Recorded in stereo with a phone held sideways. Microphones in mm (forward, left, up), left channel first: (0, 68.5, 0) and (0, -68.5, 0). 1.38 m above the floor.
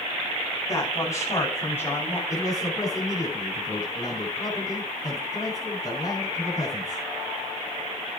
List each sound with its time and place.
0.7 s a man speaking: 25° left (ahead or behind), 8.5 m; by 2.2 s 15° left (ahead or behind), 7 m
2.3 s a man speaking: 25° left (ahead or behind), 8.5 m